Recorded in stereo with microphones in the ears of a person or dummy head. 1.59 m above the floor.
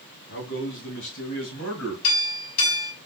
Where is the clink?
75° left (ahead or behind), 4 m.